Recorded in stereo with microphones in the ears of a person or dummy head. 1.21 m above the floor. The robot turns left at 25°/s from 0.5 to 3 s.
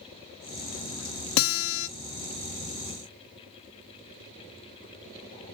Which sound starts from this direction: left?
A guitar, at 1.4 s.